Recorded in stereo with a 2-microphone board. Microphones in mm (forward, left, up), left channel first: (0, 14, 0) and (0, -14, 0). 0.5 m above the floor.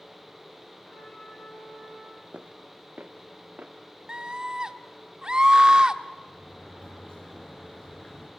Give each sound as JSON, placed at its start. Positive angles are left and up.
{"t": 0.8, "sound": "a trumpet", "side_deg": 45, "distance_m": 8.5}
{"t": 2.3, "sound": "footsteps", "side_deg": -65, "distance_m": 1.5}
{"t": 4.1, "sound": "a scream", "side_deg": -30, "distance_m": 1.0}
{"t": 6.2, "sound": "a sliding door", "side_deg": 35, "distance_m": 5.5}